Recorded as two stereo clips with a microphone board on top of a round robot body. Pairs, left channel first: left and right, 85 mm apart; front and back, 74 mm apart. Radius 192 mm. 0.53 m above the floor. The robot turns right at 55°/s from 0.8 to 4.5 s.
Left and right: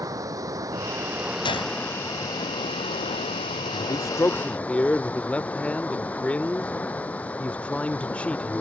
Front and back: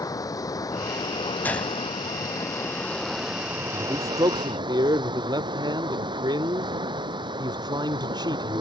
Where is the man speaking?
125° left; by 8.6 s 165° left.